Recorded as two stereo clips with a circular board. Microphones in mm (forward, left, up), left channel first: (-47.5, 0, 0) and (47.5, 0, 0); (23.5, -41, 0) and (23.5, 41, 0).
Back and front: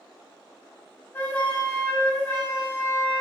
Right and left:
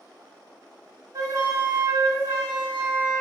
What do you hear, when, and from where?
1.1 s a flute: 115° left, 1.2 m